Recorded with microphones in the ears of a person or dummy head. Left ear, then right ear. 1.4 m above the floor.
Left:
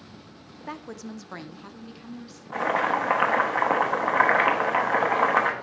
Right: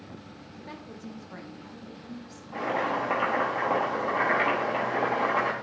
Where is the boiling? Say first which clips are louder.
Left 4 dB; 50° left (ahead or behind), 1.1 m.